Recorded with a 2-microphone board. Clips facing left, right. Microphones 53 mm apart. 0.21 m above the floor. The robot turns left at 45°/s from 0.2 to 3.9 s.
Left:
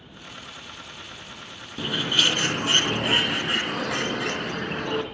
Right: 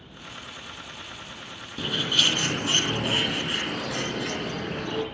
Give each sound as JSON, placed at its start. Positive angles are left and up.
{"t": 1.8, "sound": "a bird", "azimuth_deg": 170, "distance_m": 2.5}